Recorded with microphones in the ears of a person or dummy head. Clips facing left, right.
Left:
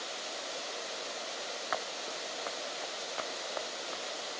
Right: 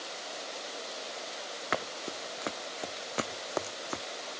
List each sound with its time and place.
1.7 s running footsteps: 45° right (ahead or behind); by 4.0 s 60° right (ahead or behind)